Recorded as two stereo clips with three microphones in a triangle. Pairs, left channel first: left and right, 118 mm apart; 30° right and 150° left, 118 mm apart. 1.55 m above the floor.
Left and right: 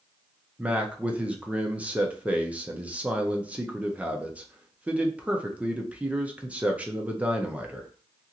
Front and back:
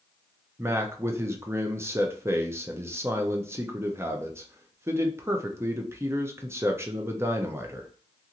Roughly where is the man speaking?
Behind.